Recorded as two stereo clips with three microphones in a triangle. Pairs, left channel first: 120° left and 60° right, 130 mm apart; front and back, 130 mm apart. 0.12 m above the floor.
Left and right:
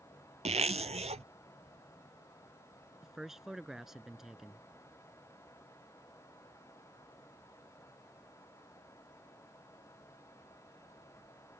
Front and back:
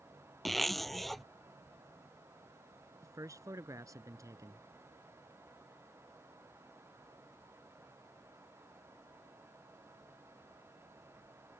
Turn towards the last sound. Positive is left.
turn(degrees=-145)